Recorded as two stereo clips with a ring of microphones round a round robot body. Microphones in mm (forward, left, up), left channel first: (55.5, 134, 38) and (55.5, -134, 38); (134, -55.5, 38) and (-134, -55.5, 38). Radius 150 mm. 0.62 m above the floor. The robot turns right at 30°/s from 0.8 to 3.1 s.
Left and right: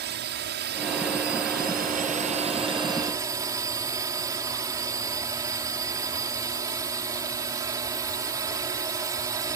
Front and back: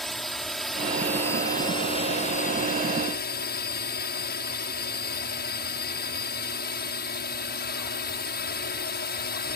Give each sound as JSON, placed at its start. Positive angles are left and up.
{"t": 0.0, "sound": "a drone", "azimuth_deg": -90}